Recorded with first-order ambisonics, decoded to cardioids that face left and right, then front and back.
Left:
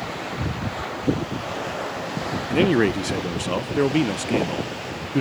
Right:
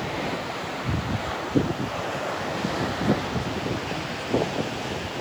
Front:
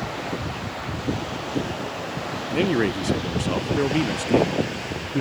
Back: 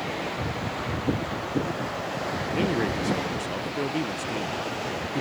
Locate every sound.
2.5 s a man speaking: 70° left